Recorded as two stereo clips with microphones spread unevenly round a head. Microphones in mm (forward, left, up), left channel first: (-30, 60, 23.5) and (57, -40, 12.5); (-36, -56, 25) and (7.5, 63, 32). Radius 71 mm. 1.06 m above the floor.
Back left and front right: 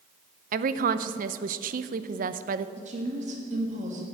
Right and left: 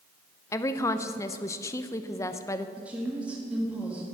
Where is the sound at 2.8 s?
15° right, 1.6 m.